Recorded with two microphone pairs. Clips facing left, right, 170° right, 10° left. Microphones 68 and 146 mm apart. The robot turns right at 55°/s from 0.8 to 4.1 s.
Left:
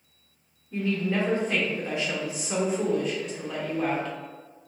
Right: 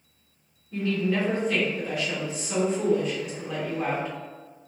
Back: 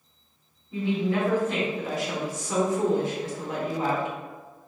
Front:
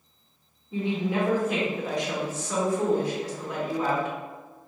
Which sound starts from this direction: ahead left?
A woman speaking, at 0.7 s.